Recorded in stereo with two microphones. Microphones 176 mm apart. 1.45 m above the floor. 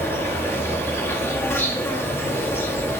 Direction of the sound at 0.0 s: 15° left (ahead or behind).